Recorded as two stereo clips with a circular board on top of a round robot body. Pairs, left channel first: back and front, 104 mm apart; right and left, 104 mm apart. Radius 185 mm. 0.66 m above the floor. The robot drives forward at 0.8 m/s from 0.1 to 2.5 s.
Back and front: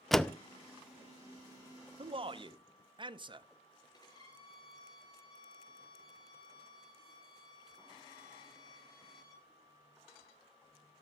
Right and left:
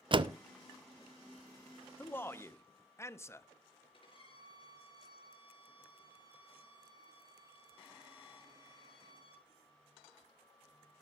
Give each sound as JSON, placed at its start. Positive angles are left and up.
{"t": 0.1, "sound": "a door slam", "azimuth_deg": 90, "distance_m": 0.9}
{"t": 2.0, "sound": "a man speaking", "azimuth_deg": -20, "distance_m": 1.4}
{"t": 3.9, "sound": "a violin", "azimuth_deg": -130, "distance_m": 4.5}